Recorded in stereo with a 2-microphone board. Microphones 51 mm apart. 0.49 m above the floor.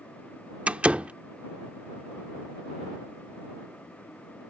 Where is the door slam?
25° right (ahead or behind).